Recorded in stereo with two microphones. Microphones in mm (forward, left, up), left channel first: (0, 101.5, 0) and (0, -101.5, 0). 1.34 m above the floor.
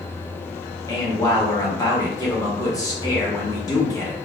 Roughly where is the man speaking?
Centre.